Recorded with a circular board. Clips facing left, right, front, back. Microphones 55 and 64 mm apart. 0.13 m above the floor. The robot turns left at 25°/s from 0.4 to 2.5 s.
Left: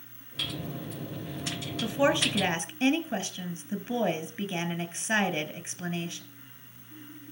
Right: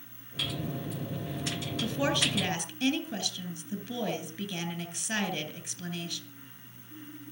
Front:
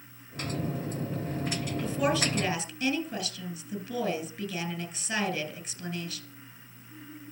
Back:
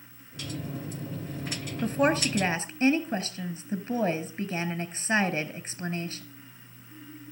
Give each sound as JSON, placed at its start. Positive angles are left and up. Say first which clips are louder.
{"t": 1.8, "sound": "a woman speaking", "louder": "left 4 dB, back 4 dB", "azimuth_deg": 160, "distance_m": 1.9}